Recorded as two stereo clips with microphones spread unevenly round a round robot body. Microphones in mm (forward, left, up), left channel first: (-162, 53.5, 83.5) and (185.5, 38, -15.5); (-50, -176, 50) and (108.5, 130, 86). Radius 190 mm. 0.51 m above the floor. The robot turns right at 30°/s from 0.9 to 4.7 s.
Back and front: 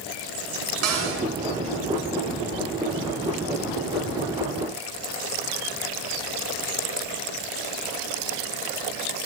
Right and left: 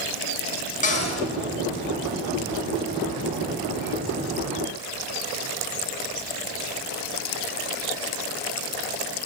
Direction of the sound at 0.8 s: 50° right.